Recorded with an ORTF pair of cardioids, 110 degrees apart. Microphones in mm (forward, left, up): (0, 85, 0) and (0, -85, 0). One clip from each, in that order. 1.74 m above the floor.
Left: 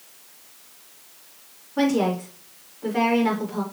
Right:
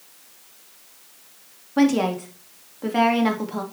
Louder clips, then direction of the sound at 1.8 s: Right 2 dB; 50° right.